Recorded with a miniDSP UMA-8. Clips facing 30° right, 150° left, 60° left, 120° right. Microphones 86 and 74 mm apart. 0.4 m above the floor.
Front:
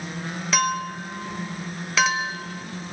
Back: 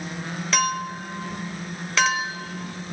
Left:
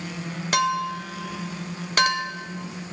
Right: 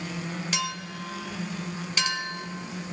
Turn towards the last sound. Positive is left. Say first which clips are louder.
# front 1 dB, left 10 dB
turn(degrees=55)